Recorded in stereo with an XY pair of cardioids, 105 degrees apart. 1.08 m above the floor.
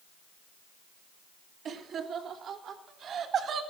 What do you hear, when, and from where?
1.6 s laughter: 65° right, 3 m; by 3.6 s 60° right, 4 m